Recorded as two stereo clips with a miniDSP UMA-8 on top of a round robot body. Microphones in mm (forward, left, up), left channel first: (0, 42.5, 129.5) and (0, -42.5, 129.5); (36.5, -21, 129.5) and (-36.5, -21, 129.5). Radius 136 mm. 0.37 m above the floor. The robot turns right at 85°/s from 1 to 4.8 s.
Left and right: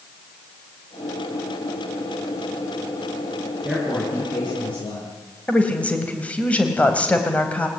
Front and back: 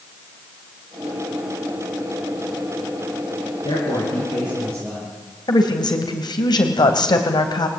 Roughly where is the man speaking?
Ahead.